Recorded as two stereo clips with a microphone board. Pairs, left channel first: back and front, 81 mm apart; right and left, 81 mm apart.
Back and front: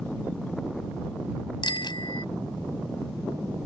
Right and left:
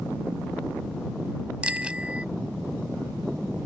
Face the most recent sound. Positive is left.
turn(degrees=165)